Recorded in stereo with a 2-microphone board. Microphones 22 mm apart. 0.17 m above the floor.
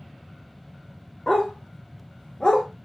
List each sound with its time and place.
1.3 s a dog barking: 45° left (ahead or behind), 2.0 m; by 2.7 s 35° left (ahead or behind), 0.8 m